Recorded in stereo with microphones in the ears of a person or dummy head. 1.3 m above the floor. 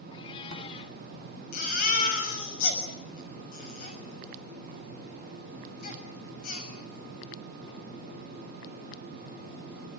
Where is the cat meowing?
35° left (ahead or behind), 1.9 m.